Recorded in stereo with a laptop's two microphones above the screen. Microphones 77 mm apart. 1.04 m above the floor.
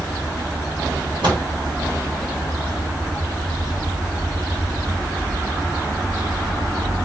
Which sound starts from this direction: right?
A microwave, at 1.2 s.